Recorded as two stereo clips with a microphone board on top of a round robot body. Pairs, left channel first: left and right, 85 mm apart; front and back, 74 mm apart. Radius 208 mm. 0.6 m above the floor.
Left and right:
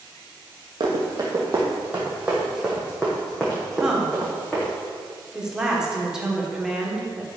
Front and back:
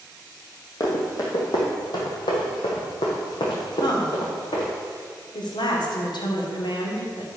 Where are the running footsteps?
45° right, 1.3 m; by 4.7 s 15° left, 3 m.